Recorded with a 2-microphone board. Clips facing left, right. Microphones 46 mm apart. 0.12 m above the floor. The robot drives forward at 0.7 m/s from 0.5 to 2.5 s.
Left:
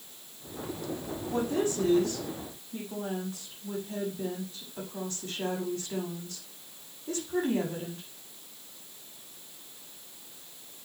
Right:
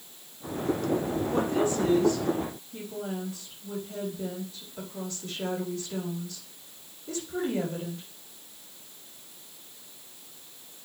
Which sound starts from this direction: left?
A woman speaking, at 1.3 s.